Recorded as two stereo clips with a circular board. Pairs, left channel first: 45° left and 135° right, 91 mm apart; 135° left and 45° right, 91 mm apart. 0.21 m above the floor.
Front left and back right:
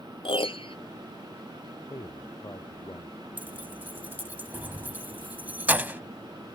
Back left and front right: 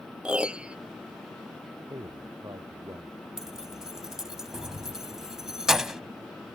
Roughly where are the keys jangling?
Behind right.